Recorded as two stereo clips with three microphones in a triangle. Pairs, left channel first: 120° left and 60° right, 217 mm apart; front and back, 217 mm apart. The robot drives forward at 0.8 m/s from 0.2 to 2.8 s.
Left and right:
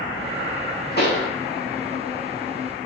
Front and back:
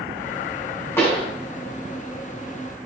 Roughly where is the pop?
Left.